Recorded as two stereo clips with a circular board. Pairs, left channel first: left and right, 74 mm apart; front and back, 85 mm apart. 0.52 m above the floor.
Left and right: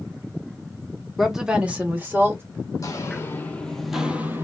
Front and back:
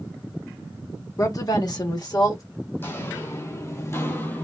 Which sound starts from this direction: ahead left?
Footsteps, at 2.8 s.